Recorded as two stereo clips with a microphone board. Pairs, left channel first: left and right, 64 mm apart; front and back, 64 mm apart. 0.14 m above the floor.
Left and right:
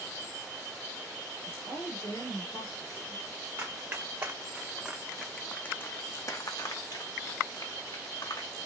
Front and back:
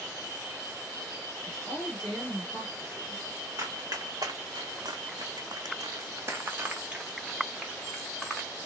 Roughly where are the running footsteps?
Behind right.